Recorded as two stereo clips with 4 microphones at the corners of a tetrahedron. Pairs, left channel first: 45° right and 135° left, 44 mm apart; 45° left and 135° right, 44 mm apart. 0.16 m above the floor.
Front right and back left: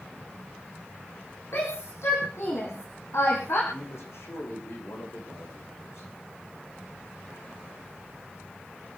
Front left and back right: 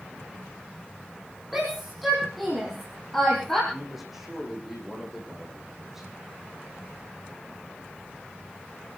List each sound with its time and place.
1.5 s a shout: 50° right, 6 m; by 3.6 s 35° right, 5.5 m
3.7 s a man speaking: 50° right, 7 m